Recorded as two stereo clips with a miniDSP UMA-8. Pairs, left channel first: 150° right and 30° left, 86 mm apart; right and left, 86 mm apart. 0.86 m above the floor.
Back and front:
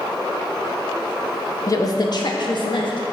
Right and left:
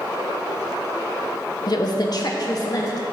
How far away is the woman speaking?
About 0.7 m.